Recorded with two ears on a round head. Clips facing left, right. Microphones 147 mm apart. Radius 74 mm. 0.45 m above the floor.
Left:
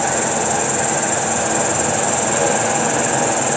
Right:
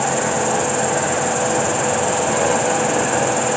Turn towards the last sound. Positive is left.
turn(degrees=5)  # may be behind; listen again after turning